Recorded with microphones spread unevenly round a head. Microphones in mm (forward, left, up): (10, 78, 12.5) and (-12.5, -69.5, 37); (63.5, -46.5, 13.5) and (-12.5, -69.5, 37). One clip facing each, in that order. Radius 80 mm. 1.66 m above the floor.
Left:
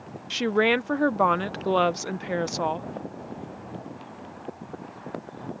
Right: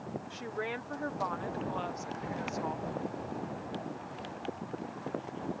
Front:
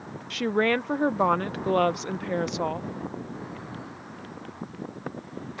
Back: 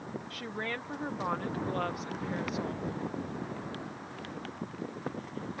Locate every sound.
0.3 s a woman speaking: 65° left